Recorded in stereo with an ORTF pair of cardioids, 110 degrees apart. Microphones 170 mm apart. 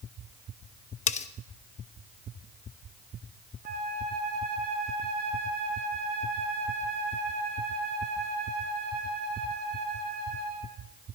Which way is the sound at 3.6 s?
60° right.